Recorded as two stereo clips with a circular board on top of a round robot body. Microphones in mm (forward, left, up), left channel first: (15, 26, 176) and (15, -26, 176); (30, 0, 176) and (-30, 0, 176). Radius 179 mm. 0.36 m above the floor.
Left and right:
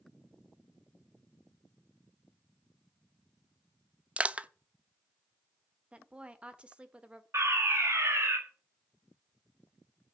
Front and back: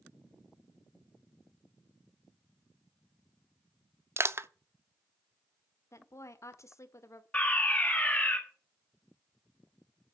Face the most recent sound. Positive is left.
turn(degrees=-70)